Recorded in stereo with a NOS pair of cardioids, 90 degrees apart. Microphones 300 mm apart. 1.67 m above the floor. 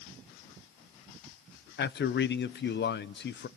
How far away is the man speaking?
About 0.9 m.